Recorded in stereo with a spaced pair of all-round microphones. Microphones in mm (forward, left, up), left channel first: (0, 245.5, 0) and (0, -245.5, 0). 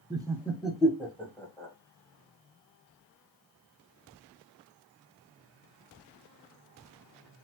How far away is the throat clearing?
I don't hear throat clearing.